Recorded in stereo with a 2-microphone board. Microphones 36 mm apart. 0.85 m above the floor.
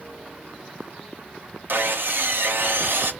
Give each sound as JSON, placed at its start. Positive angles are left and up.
{"t": 1.7, "sound": "sawing", "side_deg": -75, "distance_m": 0.5}